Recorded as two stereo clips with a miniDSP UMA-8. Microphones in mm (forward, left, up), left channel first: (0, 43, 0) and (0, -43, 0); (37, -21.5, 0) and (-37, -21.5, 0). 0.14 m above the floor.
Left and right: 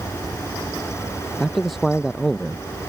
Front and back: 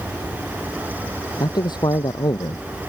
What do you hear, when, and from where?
1.4 s a man speaking: straight ahead